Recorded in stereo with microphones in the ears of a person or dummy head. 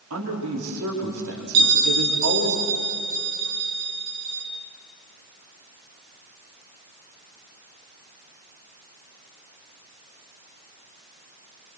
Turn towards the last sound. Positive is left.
turn(degrees=-80)